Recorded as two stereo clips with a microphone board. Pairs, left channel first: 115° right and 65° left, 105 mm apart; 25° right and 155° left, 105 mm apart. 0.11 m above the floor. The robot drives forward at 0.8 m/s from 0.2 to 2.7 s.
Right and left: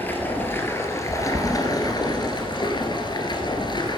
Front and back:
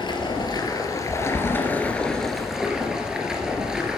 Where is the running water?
45° right, 2.5 m; by 4.0 s 120° right, 2 m.